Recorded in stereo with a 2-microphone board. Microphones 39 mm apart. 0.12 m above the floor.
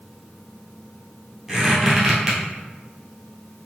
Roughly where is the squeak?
Centre.